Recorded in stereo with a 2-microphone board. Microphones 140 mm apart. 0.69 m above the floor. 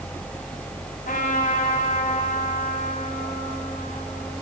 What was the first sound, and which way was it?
A trumpet, 85° left.